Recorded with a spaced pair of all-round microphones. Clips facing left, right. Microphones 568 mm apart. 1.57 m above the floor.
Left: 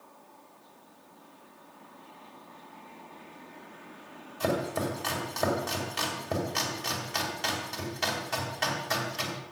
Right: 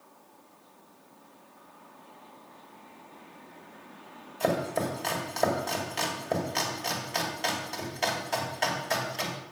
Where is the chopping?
30° left (ahead or behind), 2.5 m.